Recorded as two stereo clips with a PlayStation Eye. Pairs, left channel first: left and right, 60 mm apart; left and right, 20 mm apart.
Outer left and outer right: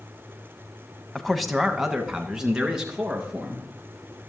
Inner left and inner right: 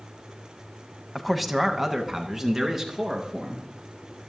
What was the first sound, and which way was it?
A man speaking, 5° left (ahead or behind).